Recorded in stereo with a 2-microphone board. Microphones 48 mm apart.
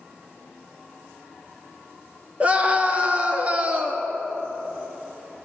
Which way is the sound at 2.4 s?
30° right (ahead or behind).